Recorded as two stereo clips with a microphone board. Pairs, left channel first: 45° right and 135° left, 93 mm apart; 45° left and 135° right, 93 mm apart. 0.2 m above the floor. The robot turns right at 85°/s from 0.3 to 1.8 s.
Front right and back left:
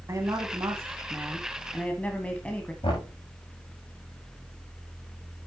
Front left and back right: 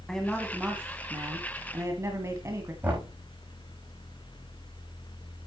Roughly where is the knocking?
Ahead right.